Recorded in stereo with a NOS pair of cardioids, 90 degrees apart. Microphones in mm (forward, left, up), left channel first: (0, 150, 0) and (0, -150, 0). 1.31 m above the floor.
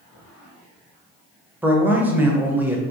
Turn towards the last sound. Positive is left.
turn(degrees=-5)